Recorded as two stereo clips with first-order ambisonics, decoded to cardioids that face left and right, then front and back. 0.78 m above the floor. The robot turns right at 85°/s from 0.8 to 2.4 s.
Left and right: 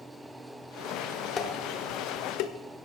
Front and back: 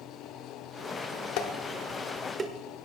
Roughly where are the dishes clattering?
Ahead left.